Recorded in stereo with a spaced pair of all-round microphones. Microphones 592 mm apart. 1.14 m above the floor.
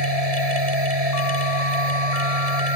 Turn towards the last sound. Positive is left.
turn(degrees=-75)  # may be behind; listen again after turning